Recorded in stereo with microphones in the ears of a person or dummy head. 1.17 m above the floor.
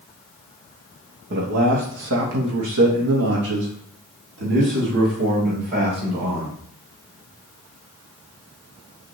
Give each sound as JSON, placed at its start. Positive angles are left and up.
{"t": 1.3, "sound": "a man speaking", "side_deg": -50, "distance_m": 1.1}